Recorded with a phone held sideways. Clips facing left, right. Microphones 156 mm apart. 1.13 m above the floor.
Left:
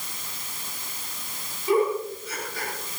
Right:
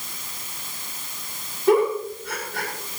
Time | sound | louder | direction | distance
1.7 | a giggle | right 4 dB | 65° right (ahead or behind) | 8 m